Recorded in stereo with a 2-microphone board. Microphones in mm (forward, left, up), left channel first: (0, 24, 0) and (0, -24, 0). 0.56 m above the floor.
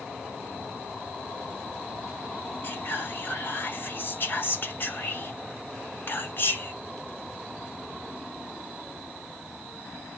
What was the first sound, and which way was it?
Whispering, 50° left (ahead or behind).